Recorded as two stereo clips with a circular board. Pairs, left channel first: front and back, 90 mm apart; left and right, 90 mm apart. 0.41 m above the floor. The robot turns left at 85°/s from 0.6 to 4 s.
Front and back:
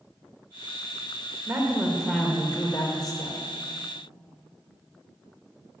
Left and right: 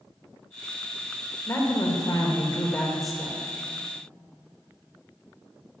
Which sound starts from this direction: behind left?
A woman speaking, at 1.5 s.